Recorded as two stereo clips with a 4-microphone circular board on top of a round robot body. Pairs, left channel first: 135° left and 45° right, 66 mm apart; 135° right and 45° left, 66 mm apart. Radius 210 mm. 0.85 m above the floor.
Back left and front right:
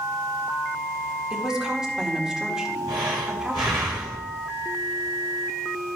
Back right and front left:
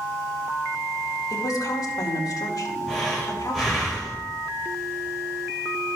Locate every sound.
1.3 s a woman speaking: 125° right, 2.5 m
2.9 s breathing: 35° right, 0.7 m